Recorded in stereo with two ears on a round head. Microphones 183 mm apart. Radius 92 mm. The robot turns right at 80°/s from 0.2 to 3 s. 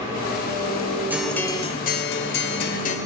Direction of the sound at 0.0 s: 15° right.